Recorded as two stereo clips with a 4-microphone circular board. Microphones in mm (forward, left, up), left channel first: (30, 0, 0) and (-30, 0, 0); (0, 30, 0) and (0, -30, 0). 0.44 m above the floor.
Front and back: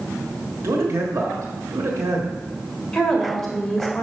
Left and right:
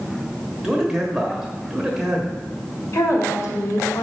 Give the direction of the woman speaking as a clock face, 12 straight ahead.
9 o'clock.